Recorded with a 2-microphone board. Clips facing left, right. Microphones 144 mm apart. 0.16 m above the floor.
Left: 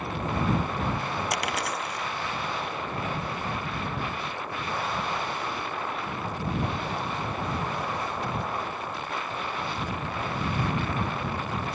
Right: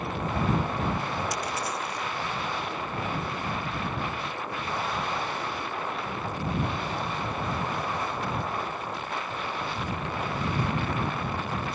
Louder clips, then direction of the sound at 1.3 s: Left 1 dB; 75° left (ahead or behind).